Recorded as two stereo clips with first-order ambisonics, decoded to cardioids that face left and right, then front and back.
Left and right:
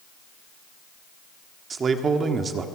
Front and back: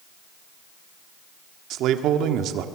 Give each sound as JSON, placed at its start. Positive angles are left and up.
{"t": 1.7, "sound": "a man speaking", "azimuth_deg": -155, "distance_m": 1.5}